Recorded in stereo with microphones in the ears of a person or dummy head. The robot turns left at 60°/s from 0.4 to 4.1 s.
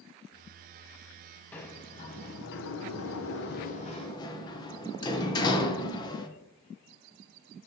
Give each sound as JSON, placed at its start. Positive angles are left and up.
{"t": 1.5, "sound": "a sliding door", "side_deg": 5, "distance_m": 0.8}